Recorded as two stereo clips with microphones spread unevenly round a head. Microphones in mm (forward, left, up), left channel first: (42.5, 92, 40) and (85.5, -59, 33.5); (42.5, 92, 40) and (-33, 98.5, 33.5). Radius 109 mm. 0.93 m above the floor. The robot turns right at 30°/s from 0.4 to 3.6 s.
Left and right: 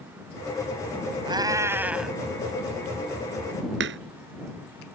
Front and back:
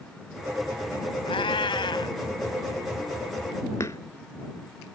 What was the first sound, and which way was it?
A cat meowing, 10° right.